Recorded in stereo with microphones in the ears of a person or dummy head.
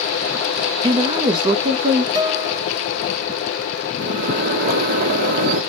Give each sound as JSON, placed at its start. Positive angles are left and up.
{"t": 0.8, "sound": "a woman speaking", "side_deg": -20, "distance_m": 0.5}
{"t": 2.1, "sound": "a guitar", "side_deg": -20, "distance_m": 1.1}
{"t": 4.0, "sound": "a microwave", "side_deg": -50, "distance_m": 0.8}